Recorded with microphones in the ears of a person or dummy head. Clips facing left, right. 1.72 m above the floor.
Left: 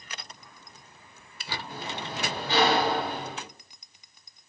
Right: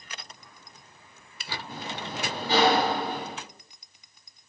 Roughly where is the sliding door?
Right.